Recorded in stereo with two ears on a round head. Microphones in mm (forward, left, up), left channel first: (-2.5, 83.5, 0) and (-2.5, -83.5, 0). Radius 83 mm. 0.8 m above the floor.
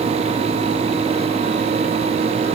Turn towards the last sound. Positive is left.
No sound to turn to.